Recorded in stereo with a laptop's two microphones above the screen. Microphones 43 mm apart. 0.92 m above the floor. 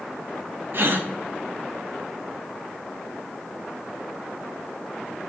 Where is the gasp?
55° right (ahead or behind), 1.2 m.